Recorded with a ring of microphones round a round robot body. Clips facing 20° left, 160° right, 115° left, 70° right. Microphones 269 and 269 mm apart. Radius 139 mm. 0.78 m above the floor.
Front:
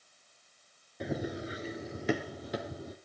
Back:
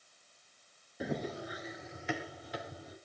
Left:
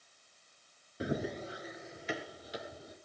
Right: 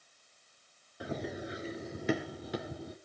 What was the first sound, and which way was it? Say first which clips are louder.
Running footsteps: front 2 dB, left 2 dB; 125° left.